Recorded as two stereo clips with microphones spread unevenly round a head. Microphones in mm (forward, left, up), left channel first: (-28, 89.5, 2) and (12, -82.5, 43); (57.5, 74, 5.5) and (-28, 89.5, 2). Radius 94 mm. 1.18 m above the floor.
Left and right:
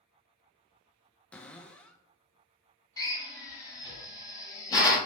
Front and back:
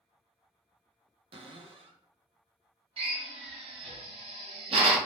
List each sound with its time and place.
1.3 s a cupboard door: 175° right, 0.5 m
3.0 s a drill: 175° left, 1.3 m